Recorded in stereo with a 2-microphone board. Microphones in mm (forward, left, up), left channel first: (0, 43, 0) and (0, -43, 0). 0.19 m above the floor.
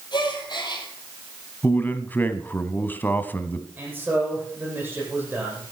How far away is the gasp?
About 3.5 m.